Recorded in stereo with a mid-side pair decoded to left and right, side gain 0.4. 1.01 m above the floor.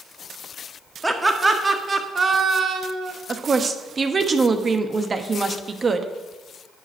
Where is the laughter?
15° right, 1.9 m; by 3.1 s 65° right, 1.8 m.